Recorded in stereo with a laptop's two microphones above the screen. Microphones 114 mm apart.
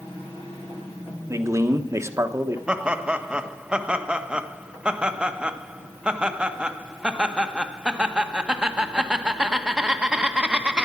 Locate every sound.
1.3 s a man speaking: 25° right (ahead or behind), 1.2 m
2.7 s laughter: 10° right (ahead or behind), 1.3 m